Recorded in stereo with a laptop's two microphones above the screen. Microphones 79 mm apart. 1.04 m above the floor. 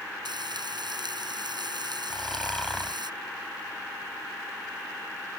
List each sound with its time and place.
0.2 s frying: 80° right
2.1 s snoring: 5° left (ahead or behind)